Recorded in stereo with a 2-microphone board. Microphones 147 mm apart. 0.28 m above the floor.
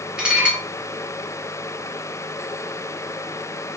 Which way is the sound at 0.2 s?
5° right (ahead or behind).